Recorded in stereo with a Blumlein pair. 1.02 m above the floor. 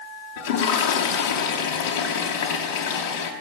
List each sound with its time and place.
0.4 s a toilet flushing: 55° left, 3 m